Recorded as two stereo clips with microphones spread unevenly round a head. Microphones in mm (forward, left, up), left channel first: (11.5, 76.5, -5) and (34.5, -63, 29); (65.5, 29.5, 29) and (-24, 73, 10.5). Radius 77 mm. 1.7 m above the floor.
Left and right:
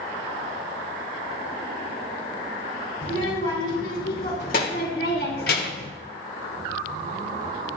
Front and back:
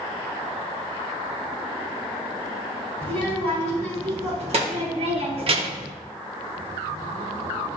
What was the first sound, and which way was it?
A child speaking, 135° left.